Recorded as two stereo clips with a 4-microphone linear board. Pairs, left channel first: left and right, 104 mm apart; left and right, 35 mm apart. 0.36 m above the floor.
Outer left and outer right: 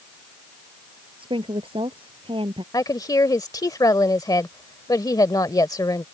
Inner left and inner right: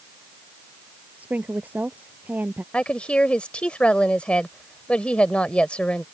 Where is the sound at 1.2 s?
55° right (ahead or behind).